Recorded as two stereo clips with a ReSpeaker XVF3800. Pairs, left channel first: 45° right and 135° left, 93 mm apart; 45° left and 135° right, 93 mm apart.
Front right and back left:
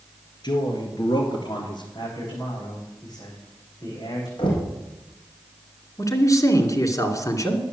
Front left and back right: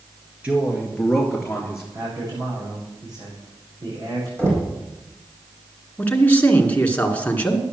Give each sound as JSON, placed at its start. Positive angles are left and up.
{"t": 0.4, "sound": "a man speaking", "azimuth_deg": -60, "distance_m": 2.5}
{"t": 1.9, "sound": "a man speaking", "azimuth_deg": -95, "distance_m": 8.0}
{"t": 4.4, "sound": "knocking", "azimuth_deg": -70, "distance_m": 4.5}
{"t": 6.0, "sound": "a man speaking", "azimuth_deg": -20, "distance_m": 2.0}